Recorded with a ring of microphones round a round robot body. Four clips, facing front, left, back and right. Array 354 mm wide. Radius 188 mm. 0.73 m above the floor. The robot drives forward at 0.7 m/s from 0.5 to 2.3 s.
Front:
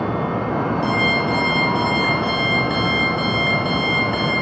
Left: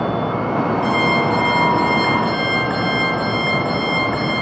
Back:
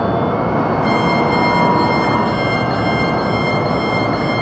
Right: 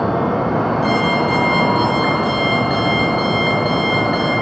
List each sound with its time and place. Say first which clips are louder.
0.8 s an alarm clock: right 1 dB, back 6 dB; 45° right, 6.5 m; by 4.3 s 50° right, 6 m